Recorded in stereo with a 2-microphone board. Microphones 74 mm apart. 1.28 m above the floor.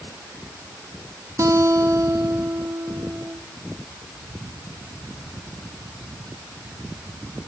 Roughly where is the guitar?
Right.